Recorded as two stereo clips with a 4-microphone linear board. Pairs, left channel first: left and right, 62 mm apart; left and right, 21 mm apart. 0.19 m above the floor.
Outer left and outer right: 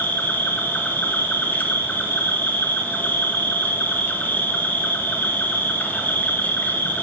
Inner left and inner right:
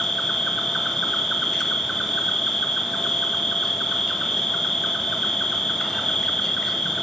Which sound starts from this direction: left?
An insect, at 0.0 s.